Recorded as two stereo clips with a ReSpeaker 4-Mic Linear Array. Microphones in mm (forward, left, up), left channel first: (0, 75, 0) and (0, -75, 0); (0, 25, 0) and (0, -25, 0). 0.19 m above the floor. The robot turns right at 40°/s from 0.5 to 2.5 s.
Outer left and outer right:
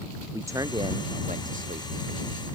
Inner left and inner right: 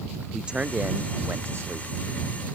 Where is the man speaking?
160° right; by 1.9 s 105° right.